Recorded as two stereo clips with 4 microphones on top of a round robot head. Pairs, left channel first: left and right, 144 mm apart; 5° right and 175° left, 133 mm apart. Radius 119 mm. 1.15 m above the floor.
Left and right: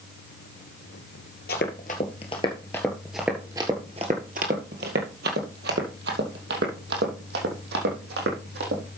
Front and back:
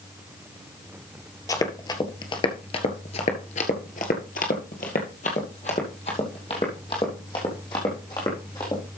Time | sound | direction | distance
1.5 | running footsteps | 50° left | 1.7 m